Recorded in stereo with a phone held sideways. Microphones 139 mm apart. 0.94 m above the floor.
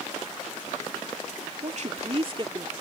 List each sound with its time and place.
1.6 s a woman speaking: 60° right (ahead or behind); by 2.7 s 30° right (ahead or behind)